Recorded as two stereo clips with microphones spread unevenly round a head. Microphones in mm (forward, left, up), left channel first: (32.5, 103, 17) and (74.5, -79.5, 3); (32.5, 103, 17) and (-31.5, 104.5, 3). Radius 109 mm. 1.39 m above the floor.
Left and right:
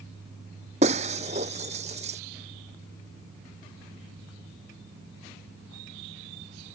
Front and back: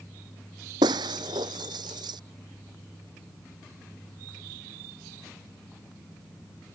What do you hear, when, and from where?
0.8 s breaking glass: 140° right